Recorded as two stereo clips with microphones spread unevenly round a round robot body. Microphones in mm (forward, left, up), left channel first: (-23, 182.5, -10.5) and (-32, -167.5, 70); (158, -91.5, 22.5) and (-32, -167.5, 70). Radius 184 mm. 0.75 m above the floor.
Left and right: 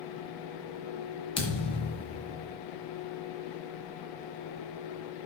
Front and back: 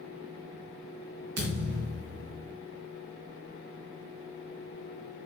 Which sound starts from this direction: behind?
A thud, at 1.4 s.